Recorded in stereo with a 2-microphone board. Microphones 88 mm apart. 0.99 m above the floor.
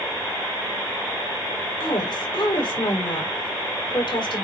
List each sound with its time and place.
1.8 s a woman speaking: 65° left (ahead or behind), 4 m